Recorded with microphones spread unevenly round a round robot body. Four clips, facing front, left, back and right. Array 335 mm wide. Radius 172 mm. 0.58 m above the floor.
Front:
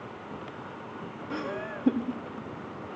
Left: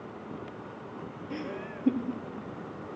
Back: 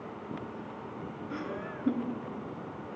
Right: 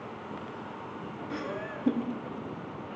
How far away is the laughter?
About 0.7 m.